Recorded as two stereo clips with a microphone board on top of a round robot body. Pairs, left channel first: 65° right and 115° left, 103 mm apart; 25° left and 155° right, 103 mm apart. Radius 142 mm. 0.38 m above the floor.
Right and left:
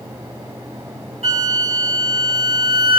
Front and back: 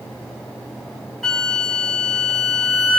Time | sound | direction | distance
1.2 | a flute | 110° left | 5.5 m